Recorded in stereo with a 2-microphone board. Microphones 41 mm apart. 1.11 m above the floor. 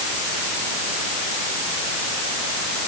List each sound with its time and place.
Only background noise.